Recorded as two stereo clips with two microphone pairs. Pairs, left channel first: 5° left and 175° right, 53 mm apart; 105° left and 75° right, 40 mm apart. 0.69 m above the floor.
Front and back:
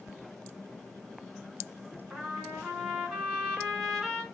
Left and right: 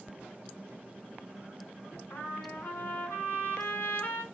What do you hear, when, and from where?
2.1 s a trumpet: 100° left, 3.5 m